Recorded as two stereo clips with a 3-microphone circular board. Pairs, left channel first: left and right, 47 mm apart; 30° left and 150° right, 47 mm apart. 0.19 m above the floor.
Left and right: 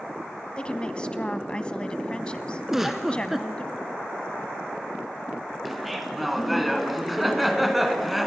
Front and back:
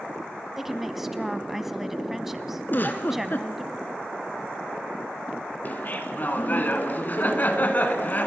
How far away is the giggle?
About 1.5 m.